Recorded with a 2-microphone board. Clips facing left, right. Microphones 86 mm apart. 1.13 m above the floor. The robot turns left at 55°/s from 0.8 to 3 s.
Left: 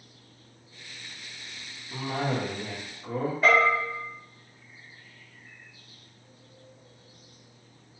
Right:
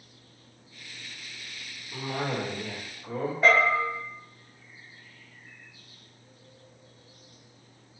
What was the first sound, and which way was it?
A cough, 20° left (ahead or behind).